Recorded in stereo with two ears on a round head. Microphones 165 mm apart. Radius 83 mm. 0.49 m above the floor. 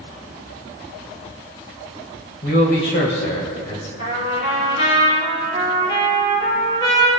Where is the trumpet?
75° left (ahead or behind), 3.5 m.